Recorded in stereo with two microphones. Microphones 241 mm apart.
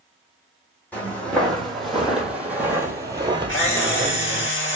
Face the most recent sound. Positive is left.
turn(degrees=55)  # may be behind; listen again after turning